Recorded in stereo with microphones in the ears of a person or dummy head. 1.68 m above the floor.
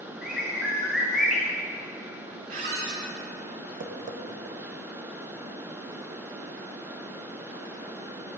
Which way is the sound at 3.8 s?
40° right (ahead or behind).